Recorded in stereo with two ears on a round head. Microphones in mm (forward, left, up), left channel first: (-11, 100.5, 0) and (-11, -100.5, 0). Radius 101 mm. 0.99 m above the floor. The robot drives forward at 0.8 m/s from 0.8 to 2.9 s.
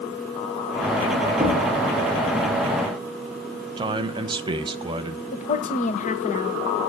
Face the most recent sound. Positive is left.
turn(degrees=30)  # may be behind; listen again after turning